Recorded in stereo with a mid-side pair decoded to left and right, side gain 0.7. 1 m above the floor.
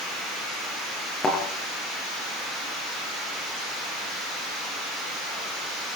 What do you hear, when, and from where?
1.2 s a thud: 25° left, 9.5 m